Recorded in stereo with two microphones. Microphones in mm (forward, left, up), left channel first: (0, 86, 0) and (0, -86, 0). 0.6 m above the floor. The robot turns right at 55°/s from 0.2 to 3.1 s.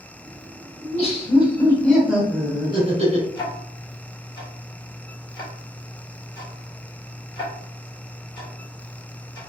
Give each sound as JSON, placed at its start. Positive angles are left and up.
{"t": 0.8, "sound": "laughter", "azimuth_deg": 115, "distance_m": 1.3}
{"t": 3.4, "sound": "ticking", "side_deg": 25, "distance_m": 1.5}